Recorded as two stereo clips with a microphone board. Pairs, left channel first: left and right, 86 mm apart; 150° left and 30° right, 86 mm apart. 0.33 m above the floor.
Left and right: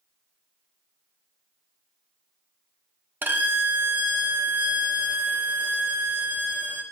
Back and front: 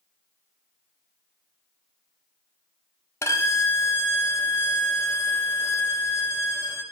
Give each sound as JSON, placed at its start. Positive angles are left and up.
{"t": 3.2, "sound": "a violin", "azimuth_deg": -155, "distance_m": 0.5}